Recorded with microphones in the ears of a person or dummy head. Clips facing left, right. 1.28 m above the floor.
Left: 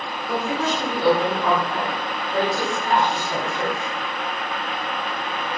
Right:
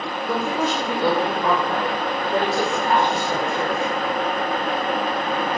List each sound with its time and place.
0.3 s a woman speaking: 45° right (ahead or behind), 0.9 m